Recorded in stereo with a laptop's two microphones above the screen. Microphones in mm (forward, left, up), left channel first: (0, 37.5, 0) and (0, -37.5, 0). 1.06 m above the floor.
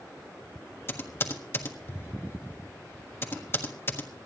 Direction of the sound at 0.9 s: 35° left (ahead or behind).